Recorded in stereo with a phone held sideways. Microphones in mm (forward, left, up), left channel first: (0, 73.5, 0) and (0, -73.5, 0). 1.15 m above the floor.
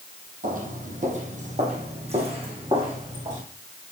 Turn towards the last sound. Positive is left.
turn(degrees=-30)  # may be behind; listen again after turning